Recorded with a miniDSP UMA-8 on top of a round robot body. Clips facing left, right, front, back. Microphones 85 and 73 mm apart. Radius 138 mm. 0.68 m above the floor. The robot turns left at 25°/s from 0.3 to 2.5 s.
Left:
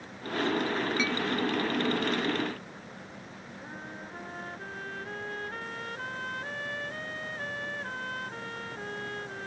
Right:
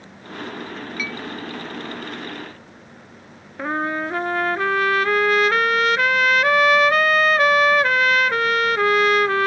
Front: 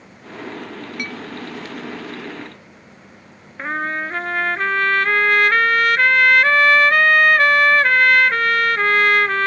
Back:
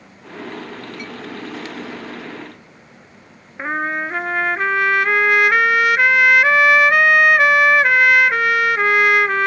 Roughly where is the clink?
Ahead left.